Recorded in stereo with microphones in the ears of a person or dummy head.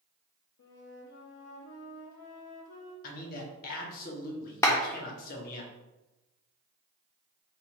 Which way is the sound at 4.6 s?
15° left (ahead or behind).